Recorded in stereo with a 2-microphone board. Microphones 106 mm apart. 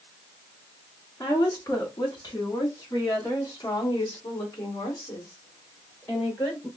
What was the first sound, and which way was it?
A woman speaking, 30° left (ahead or behind).